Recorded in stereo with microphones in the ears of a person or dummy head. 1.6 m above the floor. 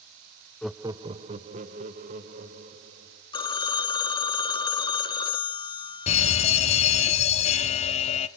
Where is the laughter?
5° left (ahead or behind), 0.6 m; by 3.2 s 45° right (ahead or behind), 4 m.